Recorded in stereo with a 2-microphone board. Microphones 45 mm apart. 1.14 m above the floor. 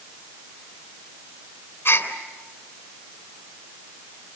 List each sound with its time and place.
1.9 s a gasp: 55° left (ahead or behind), 3.5 m